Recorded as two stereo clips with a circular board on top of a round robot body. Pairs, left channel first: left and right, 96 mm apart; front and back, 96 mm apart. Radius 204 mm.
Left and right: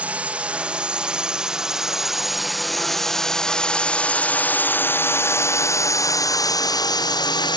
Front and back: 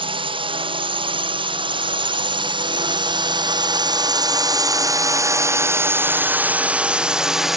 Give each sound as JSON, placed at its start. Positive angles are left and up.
{"t": 0.0, "sound": "a drone", "azimuth_deg": -165}